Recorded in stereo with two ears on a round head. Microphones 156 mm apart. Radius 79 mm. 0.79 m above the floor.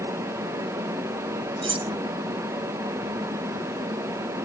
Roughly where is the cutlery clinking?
Right.